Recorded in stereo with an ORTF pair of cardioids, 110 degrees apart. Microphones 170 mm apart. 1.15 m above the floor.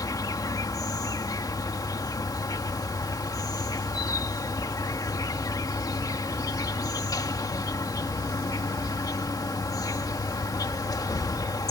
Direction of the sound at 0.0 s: 20° left.